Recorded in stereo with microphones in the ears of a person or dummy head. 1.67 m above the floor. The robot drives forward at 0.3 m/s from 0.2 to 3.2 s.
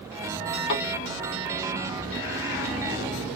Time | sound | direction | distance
0.7 | a thud | 35° left (ahead or behind) | 3 m